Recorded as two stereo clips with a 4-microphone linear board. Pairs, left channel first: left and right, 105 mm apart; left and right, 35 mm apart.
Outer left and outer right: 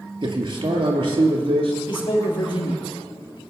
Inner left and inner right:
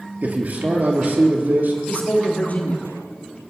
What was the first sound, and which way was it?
A man speaking, 55° right (ahead or behind).